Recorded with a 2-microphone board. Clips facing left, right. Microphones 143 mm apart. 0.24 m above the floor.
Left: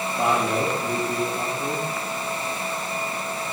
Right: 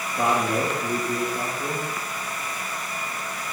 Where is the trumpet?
No trumpet in this recording.